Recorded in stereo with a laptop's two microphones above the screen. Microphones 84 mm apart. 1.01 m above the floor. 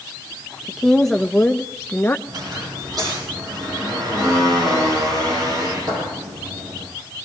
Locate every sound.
0.7 s a woman speaking: centre (ahead or behind), 1.3 m; by 2.2 s 25° left (ahead or behind), 0.9 m
2.3 s a squeak: 55° right (ahead or behind), 8.5 m